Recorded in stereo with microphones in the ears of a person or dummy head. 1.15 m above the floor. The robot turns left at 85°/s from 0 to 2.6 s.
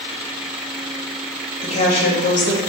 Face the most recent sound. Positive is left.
turn(degrees=60)